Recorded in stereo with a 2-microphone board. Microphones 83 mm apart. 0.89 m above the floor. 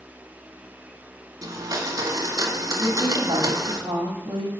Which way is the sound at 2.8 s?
80° right.